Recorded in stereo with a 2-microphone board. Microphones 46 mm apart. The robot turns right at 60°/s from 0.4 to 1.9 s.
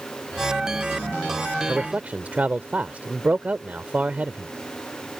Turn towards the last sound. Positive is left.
turn(degrees=-35)  # may be behind; listen again after turning